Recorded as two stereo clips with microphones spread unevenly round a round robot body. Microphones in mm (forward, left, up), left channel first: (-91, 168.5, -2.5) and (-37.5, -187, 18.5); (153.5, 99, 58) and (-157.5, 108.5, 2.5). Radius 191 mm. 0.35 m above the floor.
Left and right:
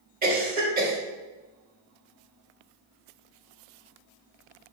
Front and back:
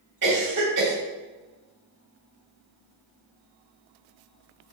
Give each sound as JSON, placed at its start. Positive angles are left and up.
{"t": 0.2, "sound": "a cough", "azimuth_deg": -145, "distance_m": 1.7}